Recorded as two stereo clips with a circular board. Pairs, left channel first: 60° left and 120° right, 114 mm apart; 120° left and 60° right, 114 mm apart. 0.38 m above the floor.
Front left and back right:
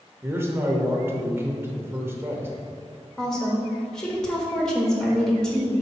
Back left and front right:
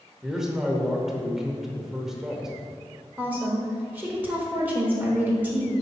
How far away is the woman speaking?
About 1.2 m.